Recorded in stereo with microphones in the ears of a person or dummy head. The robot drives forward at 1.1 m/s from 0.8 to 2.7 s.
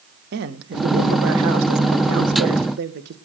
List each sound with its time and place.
0.3 s a man speaking: 60° right (ahead or behind), 2 m; by 3.1 s 65° right (ahead or behind), 2 m